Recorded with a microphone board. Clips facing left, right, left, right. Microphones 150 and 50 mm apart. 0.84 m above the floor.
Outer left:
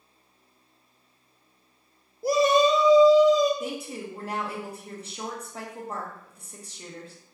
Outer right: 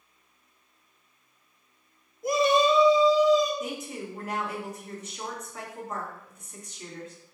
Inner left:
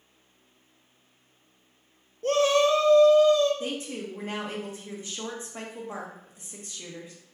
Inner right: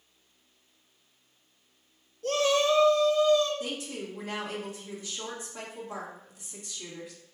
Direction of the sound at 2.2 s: 35° left (ahead or behind).